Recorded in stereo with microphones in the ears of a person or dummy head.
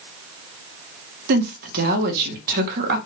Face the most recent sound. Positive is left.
turn(degrees=-55)  # may be behind; listen again after turning